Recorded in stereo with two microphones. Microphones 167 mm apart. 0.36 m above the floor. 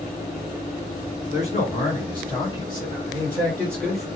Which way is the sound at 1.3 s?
40° left (ahead or behind).